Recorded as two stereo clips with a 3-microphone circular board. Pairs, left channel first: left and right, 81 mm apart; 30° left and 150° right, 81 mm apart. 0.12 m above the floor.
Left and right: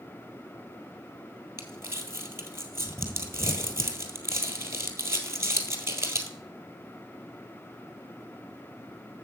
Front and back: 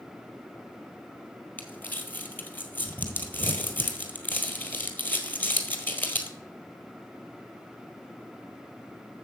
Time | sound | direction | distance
1.6 | crumpling | 35° right | 1.7 m